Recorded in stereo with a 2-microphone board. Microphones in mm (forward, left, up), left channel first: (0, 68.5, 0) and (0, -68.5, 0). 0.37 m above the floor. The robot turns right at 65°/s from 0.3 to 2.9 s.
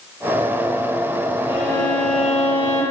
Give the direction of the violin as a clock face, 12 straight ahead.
8 o'clock.